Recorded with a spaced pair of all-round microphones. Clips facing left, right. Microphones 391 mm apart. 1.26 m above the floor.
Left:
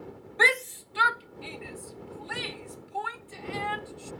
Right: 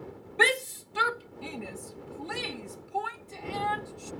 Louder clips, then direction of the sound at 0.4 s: Right 1 dB; 45° right (ahead or behind).